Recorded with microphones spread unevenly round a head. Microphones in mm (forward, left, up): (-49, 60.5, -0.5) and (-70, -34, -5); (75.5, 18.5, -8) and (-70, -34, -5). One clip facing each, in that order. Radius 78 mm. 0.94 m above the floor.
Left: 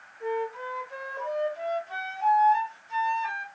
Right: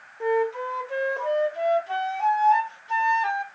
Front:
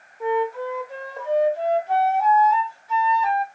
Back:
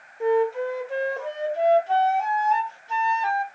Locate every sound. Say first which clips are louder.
0.2 s a flute: right 7 dB, back 2 dB; 105° right, 0.9 m